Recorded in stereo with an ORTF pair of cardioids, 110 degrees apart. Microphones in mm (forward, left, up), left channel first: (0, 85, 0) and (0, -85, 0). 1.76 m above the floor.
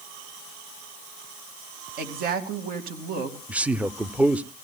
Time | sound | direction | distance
2.0 | a woman speaking | 60° right | 2.5 m
3.5 | a man speaking | 5° right | 0.6 m